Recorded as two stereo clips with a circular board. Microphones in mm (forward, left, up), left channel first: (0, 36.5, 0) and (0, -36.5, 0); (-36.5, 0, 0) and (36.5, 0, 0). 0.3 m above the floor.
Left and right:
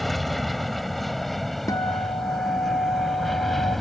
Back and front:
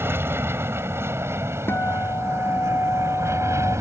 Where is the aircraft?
5° left.